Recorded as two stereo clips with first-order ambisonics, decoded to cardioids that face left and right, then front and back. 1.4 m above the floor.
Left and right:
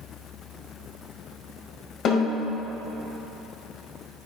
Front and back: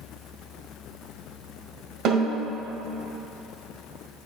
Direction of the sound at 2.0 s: 145° left.